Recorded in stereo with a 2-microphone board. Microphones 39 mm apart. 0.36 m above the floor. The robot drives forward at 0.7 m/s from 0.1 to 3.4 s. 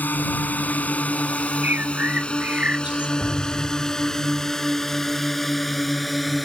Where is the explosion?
80° right; by 4.4 s 75° right (ahead or behind).